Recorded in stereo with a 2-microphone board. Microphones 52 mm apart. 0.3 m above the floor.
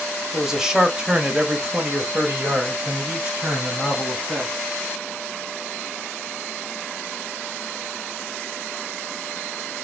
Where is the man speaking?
5° right (ahead or behind), 1.1 m; by 4.5 s 30° right (ahead or behind), 2.5 m.